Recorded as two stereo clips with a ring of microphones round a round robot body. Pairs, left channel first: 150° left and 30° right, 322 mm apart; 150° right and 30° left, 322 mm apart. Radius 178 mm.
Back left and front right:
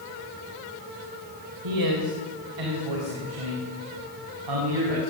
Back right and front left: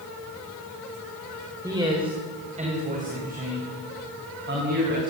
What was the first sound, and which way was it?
A man speaking, 50° right.